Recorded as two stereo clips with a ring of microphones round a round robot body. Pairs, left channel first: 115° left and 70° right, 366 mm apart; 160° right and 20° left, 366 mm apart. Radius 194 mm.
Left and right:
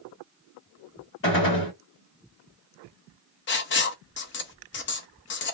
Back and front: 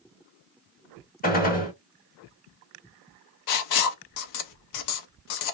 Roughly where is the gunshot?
Behind left.